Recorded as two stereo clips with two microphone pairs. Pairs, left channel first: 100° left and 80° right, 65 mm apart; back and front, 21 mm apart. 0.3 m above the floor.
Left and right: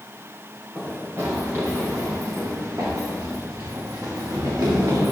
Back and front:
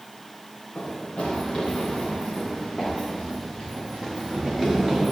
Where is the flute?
No flute in this recording.